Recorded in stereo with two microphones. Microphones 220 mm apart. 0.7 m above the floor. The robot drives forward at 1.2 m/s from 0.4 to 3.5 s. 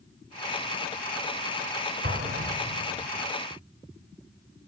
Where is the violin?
I don't hear a violin.